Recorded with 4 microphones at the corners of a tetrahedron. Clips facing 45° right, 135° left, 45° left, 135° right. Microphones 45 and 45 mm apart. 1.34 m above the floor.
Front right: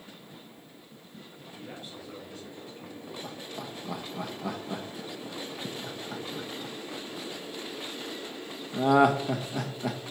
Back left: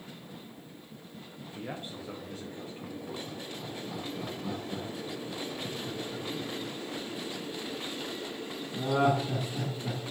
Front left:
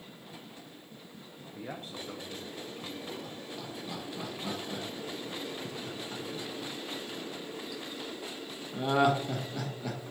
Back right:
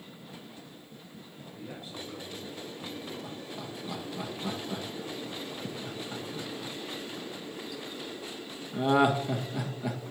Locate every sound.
1.6 s a man speaking: 85° left, 0.8 m; by 3.1 s 80° left, 2 m
3.2 s laughter: 60° right, 1.1 m